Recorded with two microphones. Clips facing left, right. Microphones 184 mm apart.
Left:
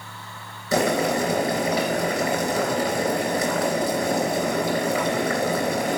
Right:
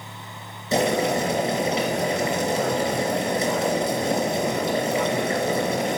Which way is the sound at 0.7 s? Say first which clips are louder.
Even; 25° right (ahead or behind).